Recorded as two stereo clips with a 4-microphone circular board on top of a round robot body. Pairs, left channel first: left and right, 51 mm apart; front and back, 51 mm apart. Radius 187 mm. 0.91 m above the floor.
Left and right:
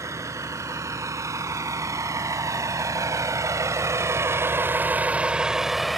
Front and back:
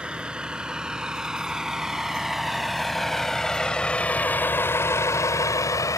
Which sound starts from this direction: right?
A vehicle, at 0.0 s.